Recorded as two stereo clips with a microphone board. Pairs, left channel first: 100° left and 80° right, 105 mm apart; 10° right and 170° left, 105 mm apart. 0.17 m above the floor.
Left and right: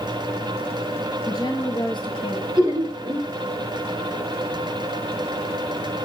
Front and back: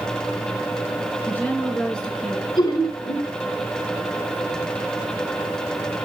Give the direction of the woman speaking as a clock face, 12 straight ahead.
10 o'clock.